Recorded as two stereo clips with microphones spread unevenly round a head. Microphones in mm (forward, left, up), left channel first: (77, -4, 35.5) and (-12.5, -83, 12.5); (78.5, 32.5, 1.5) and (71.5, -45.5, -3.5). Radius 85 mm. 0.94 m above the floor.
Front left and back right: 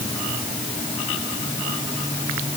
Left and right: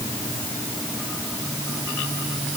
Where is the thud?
No thud in this recording.